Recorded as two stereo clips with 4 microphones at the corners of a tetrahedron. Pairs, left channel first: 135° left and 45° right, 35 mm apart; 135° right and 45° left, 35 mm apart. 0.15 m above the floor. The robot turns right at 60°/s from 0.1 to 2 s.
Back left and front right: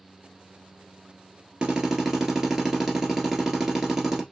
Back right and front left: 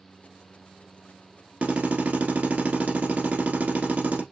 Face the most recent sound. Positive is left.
turn(degrees=30)